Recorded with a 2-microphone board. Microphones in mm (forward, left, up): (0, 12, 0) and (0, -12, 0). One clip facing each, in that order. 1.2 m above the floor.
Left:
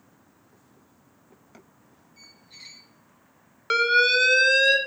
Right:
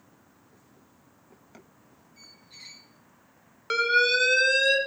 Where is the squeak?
10° left (ahead or behind), 1.6 m.